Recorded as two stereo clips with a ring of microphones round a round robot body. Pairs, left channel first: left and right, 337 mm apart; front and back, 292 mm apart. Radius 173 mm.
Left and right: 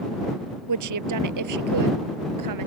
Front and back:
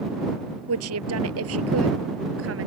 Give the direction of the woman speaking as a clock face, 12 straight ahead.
4 o'clock.